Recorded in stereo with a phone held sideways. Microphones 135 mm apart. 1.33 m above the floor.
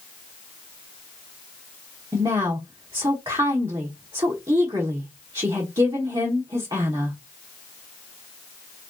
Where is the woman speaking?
30° right (ahead or behind), 1.0 m.